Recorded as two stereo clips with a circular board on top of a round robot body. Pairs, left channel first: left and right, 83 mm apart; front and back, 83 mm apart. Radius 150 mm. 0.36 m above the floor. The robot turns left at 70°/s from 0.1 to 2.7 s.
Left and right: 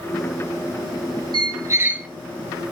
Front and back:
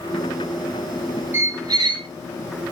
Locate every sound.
1.3 s a squeak: 120° right, 0.6 m; by 2.1 s 170° right, 0.6 m